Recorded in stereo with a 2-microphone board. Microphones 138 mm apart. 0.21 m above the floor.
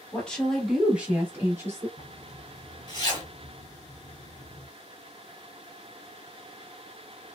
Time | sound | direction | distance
0.1 | a woman speaking | 10° left (ahead or behind) | 1.1 m
2.0 | a zipper | 35° left (ahead or behind) | 1.0 m